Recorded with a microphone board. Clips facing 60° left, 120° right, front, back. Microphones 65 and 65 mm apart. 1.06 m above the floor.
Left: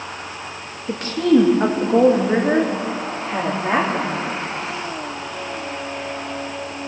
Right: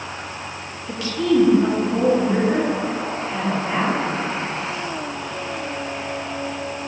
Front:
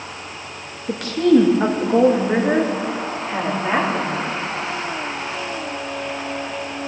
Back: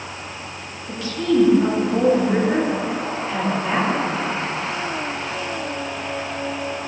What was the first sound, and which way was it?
A woman speaking, 15° left.